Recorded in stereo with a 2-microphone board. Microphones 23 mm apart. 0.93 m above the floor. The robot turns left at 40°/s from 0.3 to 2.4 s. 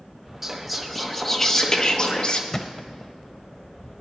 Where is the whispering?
170° right, 1.2 m; by 2.4 s 110° left, 1.2 m.